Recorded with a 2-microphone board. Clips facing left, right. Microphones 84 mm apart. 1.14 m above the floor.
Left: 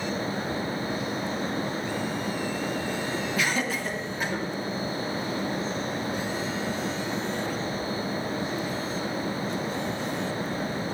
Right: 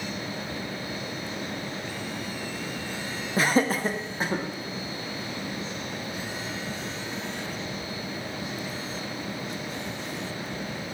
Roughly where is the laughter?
Right.